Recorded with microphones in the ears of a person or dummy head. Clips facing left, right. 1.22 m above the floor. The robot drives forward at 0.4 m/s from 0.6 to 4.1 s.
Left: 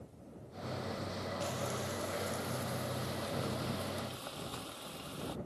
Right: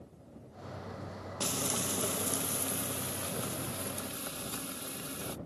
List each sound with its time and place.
1.4 s frying: 75° right (ahead or behind); by 5.4 s 35° right (ahead or behind)